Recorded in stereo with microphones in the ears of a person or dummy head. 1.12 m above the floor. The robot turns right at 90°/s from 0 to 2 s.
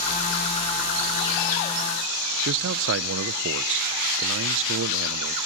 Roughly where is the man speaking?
Right.